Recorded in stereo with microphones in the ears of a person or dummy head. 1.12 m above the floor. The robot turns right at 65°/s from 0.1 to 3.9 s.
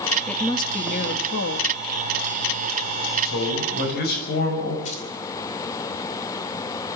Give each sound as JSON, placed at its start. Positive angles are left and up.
{"t": 0.3, "sound": "a woman speaking", "azimuth_deg": 5, "distance_m": 1.8}
{"t": 3.2, "sound": "a man speaking", "azimuth_deg": 90, "distance_m": 6.5}
{"t": 4.8, "sound": "keys jangling", "side_deg": 35, "distance_m": 2.5}